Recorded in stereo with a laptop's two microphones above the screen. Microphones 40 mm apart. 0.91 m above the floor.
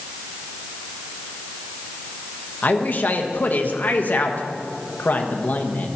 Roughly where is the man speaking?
Left.